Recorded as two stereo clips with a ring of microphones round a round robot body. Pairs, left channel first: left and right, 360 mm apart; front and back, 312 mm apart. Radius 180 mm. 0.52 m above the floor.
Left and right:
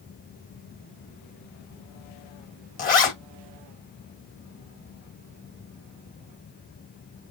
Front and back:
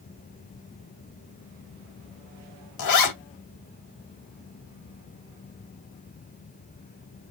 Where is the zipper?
20° left, 2 m.